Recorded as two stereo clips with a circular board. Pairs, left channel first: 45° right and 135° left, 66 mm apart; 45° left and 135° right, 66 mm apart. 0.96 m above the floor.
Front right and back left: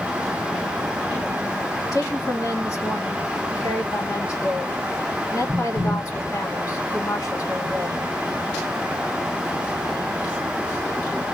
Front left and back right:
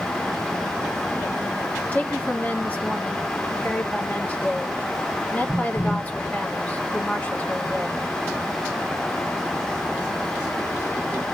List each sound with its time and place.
1.9 s a woman speaking: 20° right, 2 m